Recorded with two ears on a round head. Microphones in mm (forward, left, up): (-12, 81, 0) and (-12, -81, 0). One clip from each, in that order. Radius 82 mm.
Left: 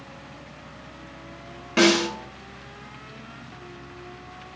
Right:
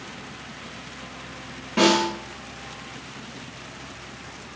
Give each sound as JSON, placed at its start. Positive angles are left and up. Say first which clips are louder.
{"t": 1.8, "sound": "a snare drum", "louder": "even", "side_deg": 45, "distance_m": 0.8}